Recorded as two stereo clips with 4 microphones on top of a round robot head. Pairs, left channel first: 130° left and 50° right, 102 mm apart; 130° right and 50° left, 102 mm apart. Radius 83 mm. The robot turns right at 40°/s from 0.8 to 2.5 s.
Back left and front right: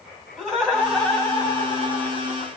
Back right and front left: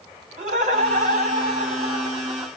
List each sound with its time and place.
0.4 s laughter: 40° left, 1.4 m; by 2.5 s 110° left, 1.4 m